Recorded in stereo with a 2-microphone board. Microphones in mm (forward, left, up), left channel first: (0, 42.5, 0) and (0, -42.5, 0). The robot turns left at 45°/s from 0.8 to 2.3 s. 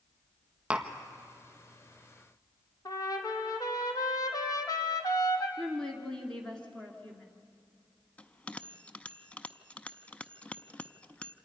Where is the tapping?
15° right (ahead or behind), 1.5 m; by 0.9 s 10° right (ahead or behind), 1.5 m.